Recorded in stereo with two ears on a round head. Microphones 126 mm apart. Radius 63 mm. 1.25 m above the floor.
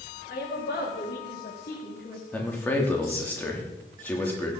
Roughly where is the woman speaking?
Left.